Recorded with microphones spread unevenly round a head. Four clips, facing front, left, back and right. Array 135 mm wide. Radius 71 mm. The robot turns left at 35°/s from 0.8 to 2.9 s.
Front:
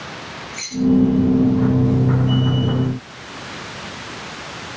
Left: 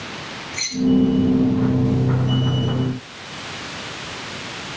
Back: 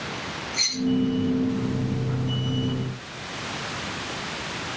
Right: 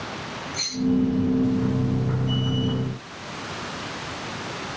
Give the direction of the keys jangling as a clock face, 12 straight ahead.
7 o'clock.